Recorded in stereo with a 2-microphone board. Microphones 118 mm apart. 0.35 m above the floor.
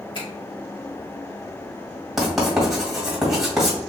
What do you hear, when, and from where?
0.1 s a finger snap: 45° left (ahead or behind), 1.8 m
2.2 s writing: 5° right (ahead or behind), 1.7 m